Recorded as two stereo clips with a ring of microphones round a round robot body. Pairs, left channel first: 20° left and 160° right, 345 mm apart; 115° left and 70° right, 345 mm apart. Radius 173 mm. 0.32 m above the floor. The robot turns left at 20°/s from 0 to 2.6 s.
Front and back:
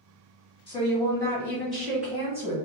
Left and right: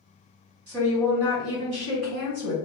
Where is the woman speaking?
45° right, 1.8 m; by 2.5 s 80° right, 1.8 m.